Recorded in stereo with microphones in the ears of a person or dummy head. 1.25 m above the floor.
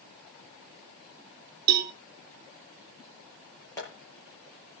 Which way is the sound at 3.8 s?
10° left (ahead or behind).